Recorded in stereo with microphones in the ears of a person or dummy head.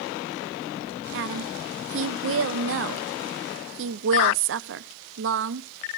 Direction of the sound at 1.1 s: 65° right (ahead or behind).